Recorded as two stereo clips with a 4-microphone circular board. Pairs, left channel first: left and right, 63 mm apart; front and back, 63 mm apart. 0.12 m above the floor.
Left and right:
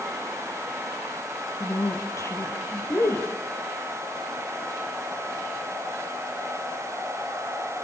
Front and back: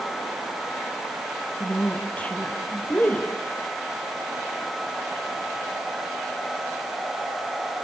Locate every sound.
1.6 s a woman speaking: 65° left, 3.5 m